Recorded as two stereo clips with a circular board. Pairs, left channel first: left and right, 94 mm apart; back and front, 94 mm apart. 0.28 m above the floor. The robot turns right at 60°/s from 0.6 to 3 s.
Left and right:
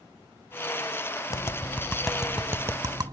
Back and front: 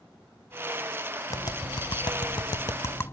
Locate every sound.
1.3 s tapping: 135° left; by 3.1 s 125° right